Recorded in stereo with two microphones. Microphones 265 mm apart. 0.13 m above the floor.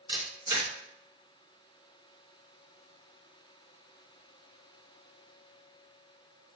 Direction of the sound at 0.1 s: 15° right (ahead or behind).